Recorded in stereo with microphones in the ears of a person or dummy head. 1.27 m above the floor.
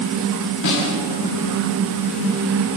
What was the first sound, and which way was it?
A snare drum, 55° left (ahead or behind).